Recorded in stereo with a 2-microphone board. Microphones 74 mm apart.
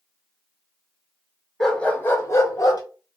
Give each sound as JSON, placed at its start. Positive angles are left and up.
{"t": 1.6, "sound": "a dog barking", "side_deg": 5, "distance_m": 0.7}